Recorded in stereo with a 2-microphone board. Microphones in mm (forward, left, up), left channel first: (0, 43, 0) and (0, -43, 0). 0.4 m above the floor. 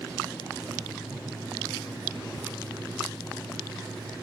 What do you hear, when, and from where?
0.6 s writing: 45° right (ahead or behind), 5.5 m